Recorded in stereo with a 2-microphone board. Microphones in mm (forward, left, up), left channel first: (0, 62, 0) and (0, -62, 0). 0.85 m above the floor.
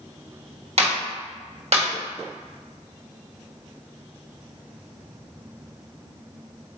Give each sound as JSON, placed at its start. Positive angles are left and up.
{"t": 0.8, "sound": "a clap", "side_deg": -55, "distance_m": 1.5}